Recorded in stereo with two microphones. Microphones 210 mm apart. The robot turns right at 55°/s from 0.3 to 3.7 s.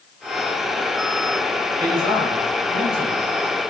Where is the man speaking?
130° right, 3.5 m; by 3.3 s 50° right, 3.5 m.